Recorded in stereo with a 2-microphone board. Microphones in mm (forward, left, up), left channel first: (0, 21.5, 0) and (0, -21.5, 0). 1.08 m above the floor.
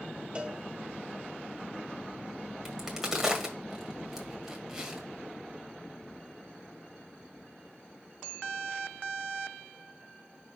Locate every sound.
0.3 s a cowbell: 25° right (ahead or behind), 0.6 m
2.6 s a crack: 15° right (ahead or behind), 1.6 m